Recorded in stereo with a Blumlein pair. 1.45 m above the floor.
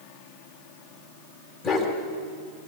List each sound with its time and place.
1.6 s a dog barking: 20° left, 3.5 m